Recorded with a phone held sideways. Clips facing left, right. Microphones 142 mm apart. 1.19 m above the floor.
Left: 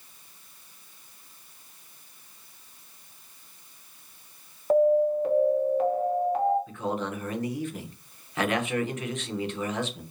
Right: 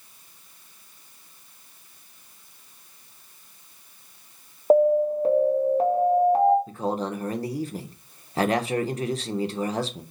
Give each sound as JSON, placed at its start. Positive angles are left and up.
{"t": 4.7, "sound": "an alarm", "side_deg": -35, "distance_m": 0.8}
{"t": 6.7, "sound": "a man speaking", "side_deg": -35, "distance_m": 0.6}